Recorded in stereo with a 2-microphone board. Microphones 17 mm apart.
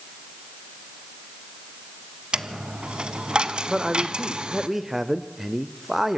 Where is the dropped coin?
70° right (ahead or behind), 1.1 m.